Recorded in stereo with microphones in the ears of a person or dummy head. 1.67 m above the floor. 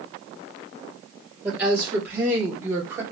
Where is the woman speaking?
10° right (ahead or behind), 2.5 m; by 3.0 s 15° right (ahead or behind), 1.6 m.